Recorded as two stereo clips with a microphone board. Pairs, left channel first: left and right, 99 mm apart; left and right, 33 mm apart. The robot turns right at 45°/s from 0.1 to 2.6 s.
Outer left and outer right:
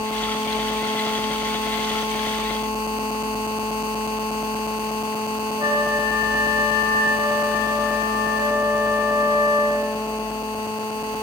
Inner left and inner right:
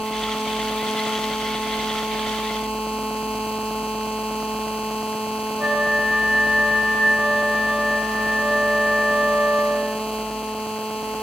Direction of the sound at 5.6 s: 40° right (ahead or behind).